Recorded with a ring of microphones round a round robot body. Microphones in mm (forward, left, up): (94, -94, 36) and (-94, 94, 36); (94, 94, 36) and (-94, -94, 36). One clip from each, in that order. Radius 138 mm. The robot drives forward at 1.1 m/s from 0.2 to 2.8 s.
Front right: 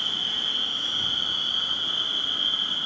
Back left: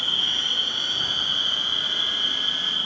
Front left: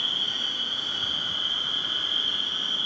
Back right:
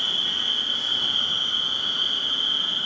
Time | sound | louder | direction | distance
0.0 | an insect | back left 3 dB, back right 3 dB | 120° right | 2 m